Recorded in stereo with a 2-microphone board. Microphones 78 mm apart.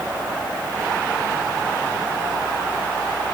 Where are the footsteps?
I don't hear footsteps.